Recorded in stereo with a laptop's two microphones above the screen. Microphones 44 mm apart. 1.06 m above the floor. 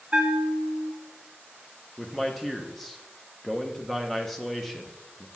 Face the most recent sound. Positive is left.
turn(degrees=5)  # may be behind; listen again after turning